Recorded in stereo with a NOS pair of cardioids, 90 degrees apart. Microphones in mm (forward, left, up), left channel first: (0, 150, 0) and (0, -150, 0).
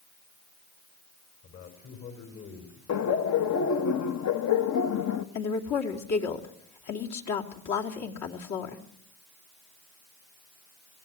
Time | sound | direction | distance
1.4 | a man speaking | 55° left | 4.5 m
2.9 | laughter | 60° left | 1.2 m
5.3 | a woman speaking | 70° left | 3 m